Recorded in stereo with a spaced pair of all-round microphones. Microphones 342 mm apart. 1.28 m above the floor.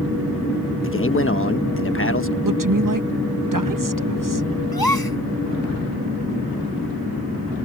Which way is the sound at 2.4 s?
60° right (ahead or behind).